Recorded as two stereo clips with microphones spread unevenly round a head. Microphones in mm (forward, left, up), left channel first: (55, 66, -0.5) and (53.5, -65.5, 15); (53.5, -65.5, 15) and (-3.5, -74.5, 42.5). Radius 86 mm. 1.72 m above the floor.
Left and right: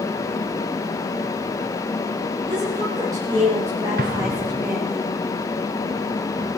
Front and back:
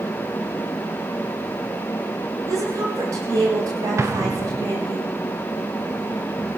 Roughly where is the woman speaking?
Behind.